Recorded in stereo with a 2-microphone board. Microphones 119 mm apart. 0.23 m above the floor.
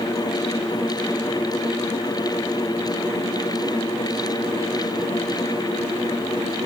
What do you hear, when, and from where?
Only background noise.